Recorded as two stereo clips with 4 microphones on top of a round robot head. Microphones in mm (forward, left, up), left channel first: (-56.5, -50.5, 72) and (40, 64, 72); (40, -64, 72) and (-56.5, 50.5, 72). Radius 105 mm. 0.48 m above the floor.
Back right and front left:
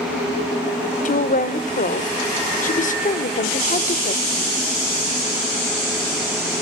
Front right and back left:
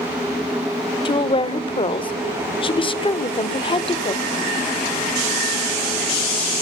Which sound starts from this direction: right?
A woman speaking, at 1.1 s.